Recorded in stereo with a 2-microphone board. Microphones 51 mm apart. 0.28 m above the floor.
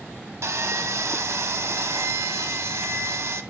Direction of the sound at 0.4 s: 65° right (ahead or behind).